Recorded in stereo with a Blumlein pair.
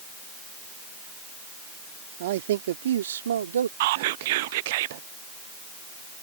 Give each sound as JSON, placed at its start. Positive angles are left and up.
{"t": 2.2, "sound": "a man speaking", "azimuth_deg": -55}
{"t": 3.8, "sound": "whispering", "azimuth_deg": -50}